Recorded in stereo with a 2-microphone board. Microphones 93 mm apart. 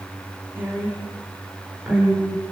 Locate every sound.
0.6 s a woman speaking: 20° right (ahead or behind), 4 m; by 2.4 s 10° right (ahead or behind), 6 m